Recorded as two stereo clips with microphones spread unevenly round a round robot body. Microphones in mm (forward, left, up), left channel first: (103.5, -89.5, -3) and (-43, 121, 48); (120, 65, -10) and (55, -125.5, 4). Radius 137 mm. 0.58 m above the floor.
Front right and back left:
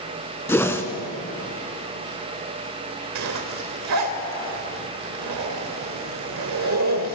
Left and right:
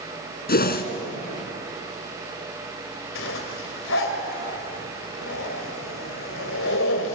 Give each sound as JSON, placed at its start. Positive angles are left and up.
{"t": 0.5, "sound": "a whoosh", "azimuth_deg": 30, "distance_m": 1.8}
{"t": 3.1, "sound": "a zipper", "azimuth_deg": 100, "distance_m": 2.5}